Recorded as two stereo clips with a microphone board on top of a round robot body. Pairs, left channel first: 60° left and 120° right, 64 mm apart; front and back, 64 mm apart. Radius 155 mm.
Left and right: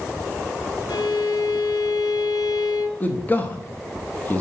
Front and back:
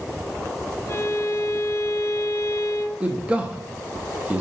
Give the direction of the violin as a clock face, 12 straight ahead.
10 o'clock.